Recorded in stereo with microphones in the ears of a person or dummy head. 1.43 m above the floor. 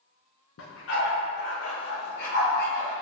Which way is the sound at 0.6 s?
70° left (ahead or behind).